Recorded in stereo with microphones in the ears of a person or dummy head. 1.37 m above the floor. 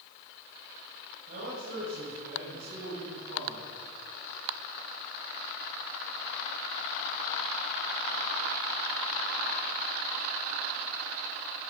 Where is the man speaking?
45° right (ahead or behind), 7 m; by 3.6 s 60° right (ahead or behind), 10 m.